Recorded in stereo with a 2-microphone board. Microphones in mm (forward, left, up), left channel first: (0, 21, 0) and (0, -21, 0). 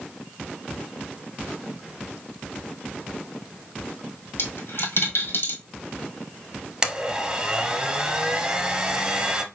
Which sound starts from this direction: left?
A dropped coin, at 4.4 s.